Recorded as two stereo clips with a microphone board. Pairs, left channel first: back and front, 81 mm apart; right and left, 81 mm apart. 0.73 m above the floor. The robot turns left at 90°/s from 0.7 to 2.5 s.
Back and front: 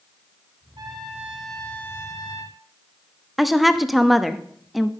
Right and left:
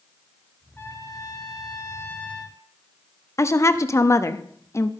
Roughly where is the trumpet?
Ahead right.